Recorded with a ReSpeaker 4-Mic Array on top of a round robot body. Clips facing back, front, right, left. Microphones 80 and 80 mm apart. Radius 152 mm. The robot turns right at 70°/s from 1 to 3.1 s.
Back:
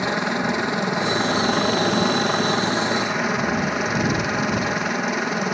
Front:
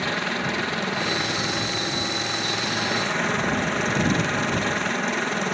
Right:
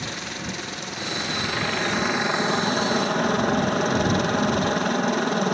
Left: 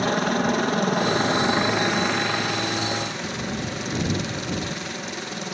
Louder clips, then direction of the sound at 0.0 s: Back 4 dB, left 11 dB; 110° left.